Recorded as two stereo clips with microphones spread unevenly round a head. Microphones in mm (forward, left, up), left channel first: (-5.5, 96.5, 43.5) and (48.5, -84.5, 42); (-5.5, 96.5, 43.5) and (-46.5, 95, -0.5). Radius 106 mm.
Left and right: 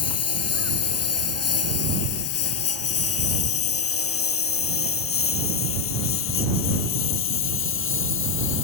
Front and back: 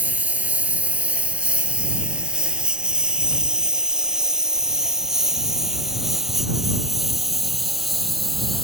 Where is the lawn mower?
115° left; by 8.7 s 85° left.